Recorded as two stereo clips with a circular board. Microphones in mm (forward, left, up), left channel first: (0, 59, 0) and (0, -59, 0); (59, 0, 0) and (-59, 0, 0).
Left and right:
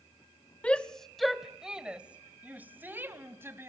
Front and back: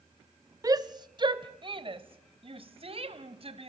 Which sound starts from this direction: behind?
A shout, at 0.6 s.